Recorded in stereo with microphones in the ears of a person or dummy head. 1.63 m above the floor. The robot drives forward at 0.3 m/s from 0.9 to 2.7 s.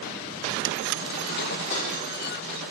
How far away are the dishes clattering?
About 1.6 m.